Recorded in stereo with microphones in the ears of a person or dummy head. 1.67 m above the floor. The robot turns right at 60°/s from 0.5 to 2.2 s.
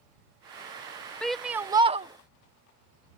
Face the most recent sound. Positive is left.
turn(degrees=-130)